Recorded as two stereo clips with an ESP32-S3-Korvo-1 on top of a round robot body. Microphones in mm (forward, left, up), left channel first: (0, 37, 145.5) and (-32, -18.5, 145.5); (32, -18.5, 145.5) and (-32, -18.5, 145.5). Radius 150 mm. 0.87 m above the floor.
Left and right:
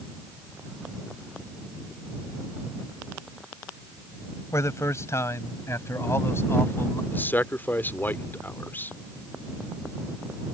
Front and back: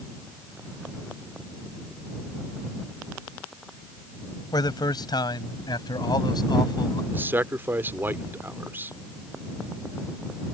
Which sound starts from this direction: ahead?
A man speaking, at 4.5 s.